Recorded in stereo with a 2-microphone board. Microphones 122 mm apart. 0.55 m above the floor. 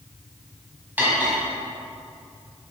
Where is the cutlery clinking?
15° right (ahead or behind), 2 m.